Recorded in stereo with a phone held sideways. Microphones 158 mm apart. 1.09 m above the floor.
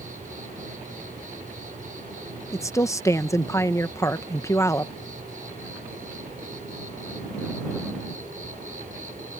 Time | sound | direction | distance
0.0 | an insect | 60° right (ahead or behind) | ?
2.5 | a woman speaking | 20° left (ahead or behind) | ?